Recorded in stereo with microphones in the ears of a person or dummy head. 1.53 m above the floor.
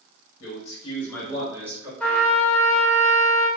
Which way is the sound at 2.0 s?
5° left (ahead or behind).